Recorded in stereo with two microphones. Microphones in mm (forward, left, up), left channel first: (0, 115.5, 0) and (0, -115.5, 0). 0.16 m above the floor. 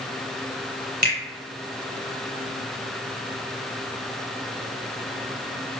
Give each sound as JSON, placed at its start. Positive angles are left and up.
{"t": 1.0, "sound": "a finger snap", "side_deg": -40, "distance_m": 1.5}